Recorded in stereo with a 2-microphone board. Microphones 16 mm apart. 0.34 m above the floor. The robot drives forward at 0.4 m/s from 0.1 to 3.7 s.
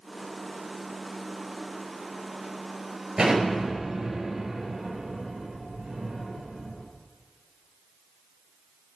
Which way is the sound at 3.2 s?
70° right (ahead or behind).